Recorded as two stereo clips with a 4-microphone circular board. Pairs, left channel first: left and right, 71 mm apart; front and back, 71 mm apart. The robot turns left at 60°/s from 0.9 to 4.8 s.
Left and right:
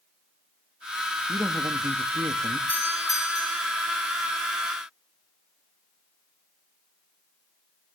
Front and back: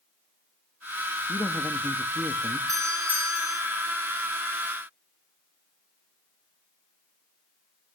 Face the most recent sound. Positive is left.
turn(degrees=20)